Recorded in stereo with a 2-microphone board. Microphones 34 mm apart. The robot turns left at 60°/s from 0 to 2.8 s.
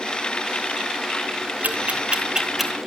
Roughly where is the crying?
I don't hear crying.